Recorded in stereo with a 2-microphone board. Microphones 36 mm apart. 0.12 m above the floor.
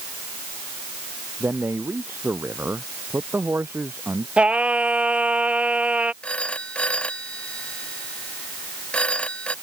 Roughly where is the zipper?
No zipper in this recording.